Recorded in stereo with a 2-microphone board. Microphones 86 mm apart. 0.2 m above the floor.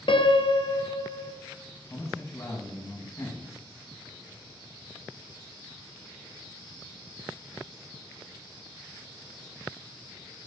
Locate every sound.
0.1 s a piano: 75° left (ahead or behind), 0.8 m
1.9 s a man speaking: 35° left (ahead or behind), 1.9 m